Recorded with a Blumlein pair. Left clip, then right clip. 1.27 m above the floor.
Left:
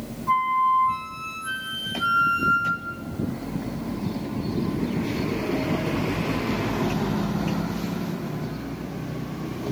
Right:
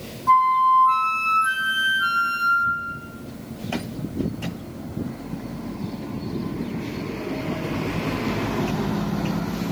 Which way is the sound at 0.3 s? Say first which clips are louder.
Right 5 dB; 70° right.